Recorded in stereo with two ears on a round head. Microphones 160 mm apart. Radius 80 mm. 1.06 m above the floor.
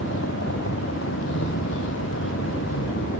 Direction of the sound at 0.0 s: 85° left.